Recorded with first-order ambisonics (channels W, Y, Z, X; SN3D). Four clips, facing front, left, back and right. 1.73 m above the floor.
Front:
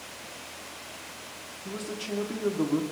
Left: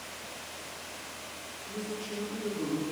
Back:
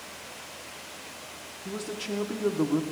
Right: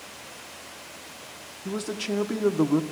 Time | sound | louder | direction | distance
1.6 | a man speaking | right 8 dB, back 1 dB | 95° right | 1.1 m